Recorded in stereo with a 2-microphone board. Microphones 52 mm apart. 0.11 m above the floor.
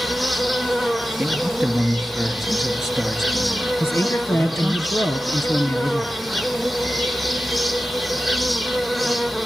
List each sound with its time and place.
0.0 s an insect: centre (ahead or behind), 0.9 m
1.2 s a man speaking: 5° right (ahead or behind), 2 m
3.8 s a man speaking: 55° left (ahead or behind), 2.5 m